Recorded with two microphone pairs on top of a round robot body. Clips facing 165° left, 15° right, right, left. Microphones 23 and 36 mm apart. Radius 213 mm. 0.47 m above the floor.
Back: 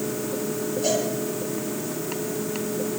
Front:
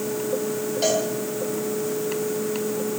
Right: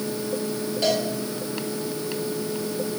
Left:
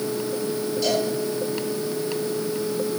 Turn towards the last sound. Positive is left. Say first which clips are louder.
# front 2 dB, right 1 dB
turn(degrees=-35)